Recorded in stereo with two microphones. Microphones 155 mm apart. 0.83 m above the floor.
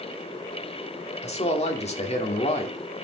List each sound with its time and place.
1.2 s a man speaking: 40° left (ahead or behind), 2 m